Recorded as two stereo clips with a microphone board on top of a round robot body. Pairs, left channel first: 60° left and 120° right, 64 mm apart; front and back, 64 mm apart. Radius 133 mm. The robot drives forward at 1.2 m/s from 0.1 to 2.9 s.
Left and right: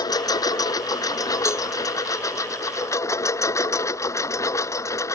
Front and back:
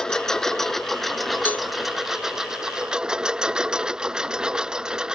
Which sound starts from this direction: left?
A lawn mower, at 0.0 s.